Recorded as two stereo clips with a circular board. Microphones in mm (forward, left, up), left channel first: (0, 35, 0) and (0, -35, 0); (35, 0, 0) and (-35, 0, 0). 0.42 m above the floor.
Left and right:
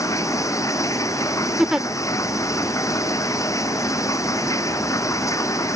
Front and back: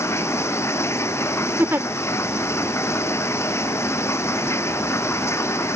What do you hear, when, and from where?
0.0 s running water: 50° left
1.6 s a giggle: 165° right